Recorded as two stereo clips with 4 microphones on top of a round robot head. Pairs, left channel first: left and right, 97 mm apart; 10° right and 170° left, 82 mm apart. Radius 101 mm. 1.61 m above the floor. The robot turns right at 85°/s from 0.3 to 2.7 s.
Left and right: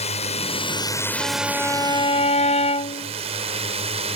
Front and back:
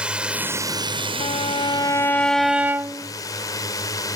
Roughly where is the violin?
Ahead right.